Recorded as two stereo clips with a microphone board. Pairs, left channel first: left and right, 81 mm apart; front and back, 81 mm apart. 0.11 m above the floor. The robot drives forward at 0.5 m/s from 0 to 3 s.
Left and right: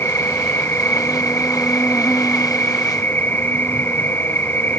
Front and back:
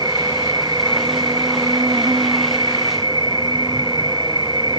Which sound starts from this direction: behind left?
An insect, at 0.0 s.